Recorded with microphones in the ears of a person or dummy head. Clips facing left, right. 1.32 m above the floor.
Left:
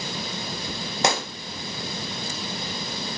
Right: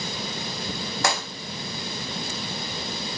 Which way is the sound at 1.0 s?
20° left (ahead or behind).